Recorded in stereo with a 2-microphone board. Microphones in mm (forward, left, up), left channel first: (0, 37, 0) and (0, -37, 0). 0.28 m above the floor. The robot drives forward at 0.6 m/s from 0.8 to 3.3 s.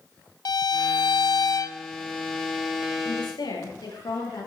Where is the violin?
70° left (ahead or behind), 0.5 m; by 1.8 s 45° left (ahead or behind), 0.7 m.